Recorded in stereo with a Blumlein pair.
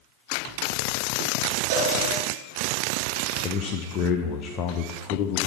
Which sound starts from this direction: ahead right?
A cowbell, at 1.7 s.